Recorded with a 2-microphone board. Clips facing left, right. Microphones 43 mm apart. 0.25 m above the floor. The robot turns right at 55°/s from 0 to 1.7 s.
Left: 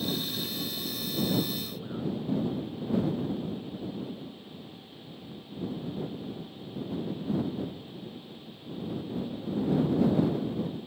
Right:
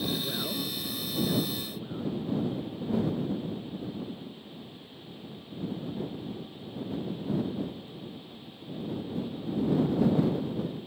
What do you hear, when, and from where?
0.2 s a man speaking: 70° right; by 2.2 s 10° left